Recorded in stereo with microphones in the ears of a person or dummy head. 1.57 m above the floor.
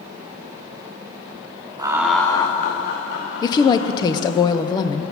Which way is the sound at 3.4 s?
20° left (ahead or behind).